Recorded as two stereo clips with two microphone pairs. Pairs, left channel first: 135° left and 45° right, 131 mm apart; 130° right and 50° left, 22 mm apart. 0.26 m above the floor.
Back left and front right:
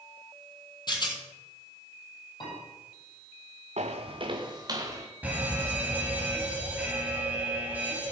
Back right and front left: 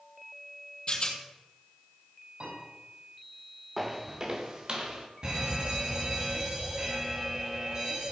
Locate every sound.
0.9 s a rattle: 170° right, 1.7 m
2.4 s a piano: 80° left, 6.5 m
3.8 s footsteps: 20° right, 1.3 m; by 5.1 s 15° left, 2.5 m
5.2 s an alarm: 25° left, 2.0 m